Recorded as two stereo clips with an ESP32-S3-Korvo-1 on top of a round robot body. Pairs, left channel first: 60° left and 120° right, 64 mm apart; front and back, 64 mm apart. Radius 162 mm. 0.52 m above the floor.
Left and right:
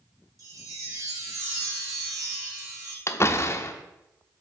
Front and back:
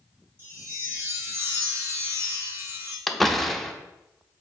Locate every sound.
0.4 s a chime: 135° right, 2.5 m
3.1 s a door slam: 85° left, 0.8 m